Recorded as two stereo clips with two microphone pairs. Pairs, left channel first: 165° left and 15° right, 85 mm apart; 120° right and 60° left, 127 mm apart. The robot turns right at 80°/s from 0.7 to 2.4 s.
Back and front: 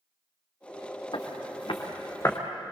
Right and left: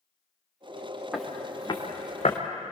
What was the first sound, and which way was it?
Footsteps, 145° left.